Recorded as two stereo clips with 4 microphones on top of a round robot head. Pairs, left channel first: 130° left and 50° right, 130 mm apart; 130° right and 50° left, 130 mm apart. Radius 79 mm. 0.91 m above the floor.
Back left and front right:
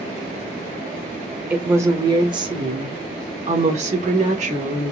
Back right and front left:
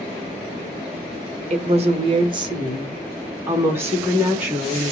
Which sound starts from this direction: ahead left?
A woman speaking, at 1.5 s.